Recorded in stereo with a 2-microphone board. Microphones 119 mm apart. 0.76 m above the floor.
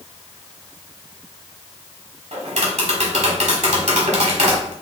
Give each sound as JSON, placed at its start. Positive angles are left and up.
{"t": 2.3, "sound": "tapping", "side_deg": -70, "distance_m": 1.2}